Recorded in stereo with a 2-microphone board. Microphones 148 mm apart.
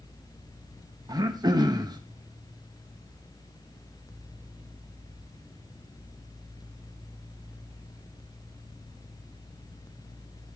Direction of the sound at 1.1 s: 30° right (ahead or behind).